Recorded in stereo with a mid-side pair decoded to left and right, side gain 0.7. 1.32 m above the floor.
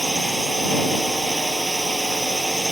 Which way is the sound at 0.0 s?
5° right.